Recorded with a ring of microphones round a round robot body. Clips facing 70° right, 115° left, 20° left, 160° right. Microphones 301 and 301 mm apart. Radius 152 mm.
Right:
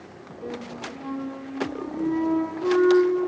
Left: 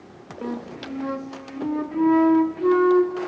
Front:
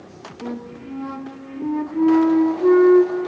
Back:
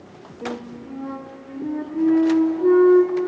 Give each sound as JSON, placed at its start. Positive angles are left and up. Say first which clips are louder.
{"t": 0.4, "sound": "a flute", "louder": "left 4 dB, front 1 dB", "azimuth_deg": 95, "distance_m": 0.8}